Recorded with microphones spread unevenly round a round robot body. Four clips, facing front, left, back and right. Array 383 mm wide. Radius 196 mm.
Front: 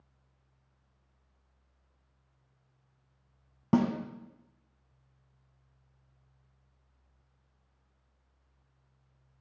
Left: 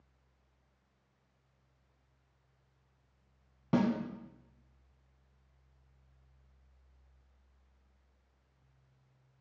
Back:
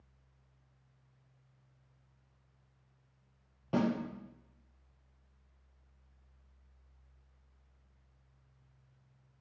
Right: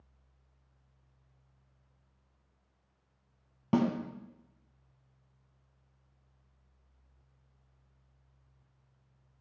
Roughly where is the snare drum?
Ahead.